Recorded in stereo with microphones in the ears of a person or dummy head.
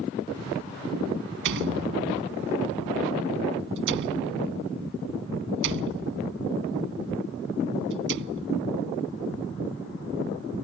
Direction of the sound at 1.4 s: 70° right (ahead or behind).